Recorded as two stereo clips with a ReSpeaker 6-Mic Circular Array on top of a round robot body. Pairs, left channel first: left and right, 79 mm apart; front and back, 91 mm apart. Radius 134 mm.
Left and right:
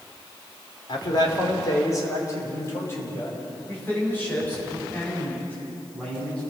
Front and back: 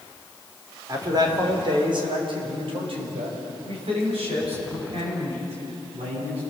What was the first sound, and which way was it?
A man speaking, 125° left.